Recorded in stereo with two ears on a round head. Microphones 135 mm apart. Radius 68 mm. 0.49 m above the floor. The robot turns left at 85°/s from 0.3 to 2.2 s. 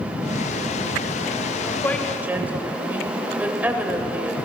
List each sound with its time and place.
1.8 s a woman speaking: 20° left, 2.5 m; by 4.3 s 15° right, 2.5 m